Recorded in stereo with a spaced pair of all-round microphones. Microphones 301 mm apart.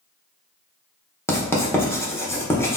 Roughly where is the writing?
Centre.